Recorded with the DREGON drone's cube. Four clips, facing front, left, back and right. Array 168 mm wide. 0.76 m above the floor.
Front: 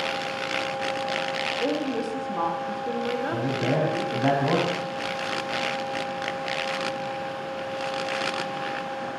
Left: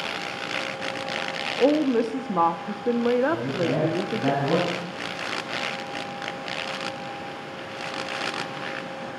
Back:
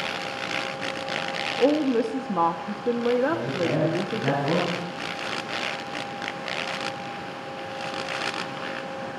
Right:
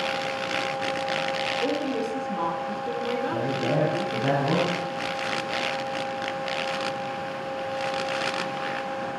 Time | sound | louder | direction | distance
1.6 | a woman speaking | left 10 dB, back 8 dB | 120° left | 0.8 m
3.3 | a man speaking | left 1 dB, even | 10° left | 6 m